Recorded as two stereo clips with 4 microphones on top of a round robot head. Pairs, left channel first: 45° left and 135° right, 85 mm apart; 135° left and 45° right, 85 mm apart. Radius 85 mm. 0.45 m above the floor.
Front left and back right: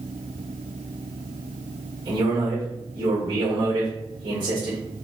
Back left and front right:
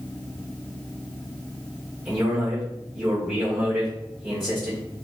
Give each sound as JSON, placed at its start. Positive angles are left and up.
{"t": 2.0, "sound": "a man speaking", "azimuth_deg": -125, "distance_m": 1.4}